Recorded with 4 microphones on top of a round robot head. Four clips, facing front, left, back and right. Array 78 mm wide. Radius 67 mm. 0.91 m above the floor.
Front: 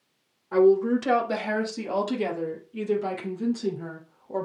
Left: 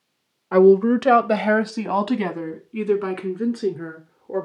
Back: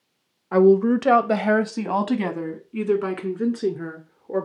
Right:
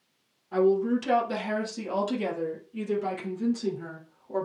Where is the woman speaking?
115° left, 0.6 m; by 4.5 s 145° left, 2.5 m.